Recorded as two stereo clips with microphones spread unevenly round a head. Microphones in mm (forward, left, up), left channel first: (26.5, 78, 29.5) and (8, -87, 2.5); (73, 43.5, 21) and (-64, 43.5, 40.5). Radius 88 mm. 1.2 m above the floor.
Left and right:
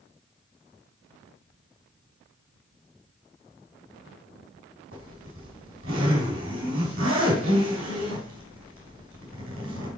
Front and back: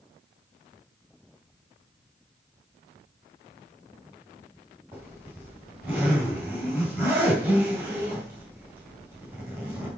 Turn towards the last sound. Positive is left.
turn(degrees=-105)